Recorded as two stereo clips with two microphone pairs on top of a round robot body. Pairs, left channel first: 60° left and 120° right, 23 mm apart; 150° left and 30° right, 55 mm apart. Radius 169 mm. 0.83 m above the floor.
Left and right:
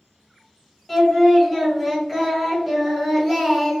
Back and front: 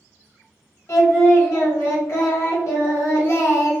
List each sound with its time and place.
0.9 s singing: 160° left, 1.4 m